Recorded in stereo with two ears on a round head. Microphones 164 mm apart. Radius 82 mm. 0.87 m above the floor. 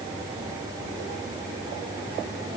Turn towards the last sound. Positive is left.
No sound to turn to.